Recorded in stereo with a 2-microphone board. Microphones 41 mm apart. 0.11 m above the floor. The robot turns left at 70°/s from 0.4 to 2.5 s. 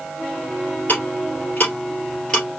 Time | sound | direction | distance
0.9 | ticking | 45° left (ahead or behind) | 2.5 m